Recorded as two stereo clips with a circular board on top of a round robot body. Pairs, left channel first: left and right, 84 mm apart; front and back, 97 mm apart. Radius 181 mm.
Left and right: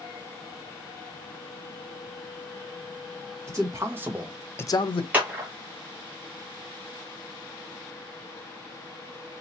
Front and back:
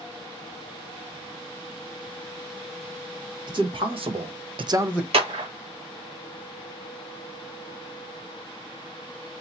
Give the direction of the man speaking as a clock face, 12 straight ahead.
5 o'clock.